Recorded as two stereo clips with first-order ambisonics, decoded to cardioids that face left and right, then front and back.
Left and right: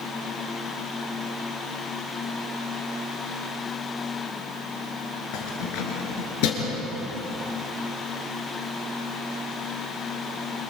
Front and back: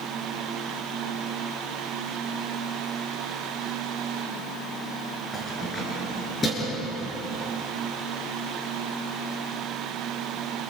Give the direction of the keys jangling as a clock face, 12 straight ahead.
10 o'clock.